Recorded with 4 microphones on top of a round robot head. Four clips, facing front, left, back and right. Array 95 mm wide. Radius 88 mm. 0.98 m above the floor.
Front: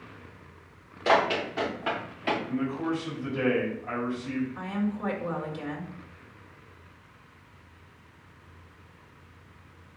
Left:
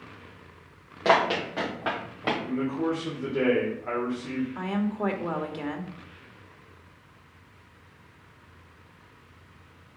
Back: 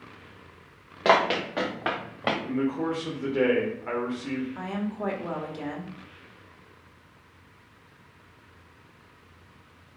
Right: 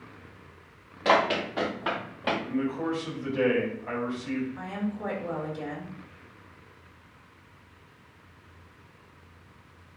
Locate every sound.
1.1 s running footsteps: 160° left, 4.5 m; by 2.4 s 165° left, 5.5 m
2.5 s a man speaking: 145° left, 3.5 m
4.5 s a woman speaking: 115° left, 2.5 m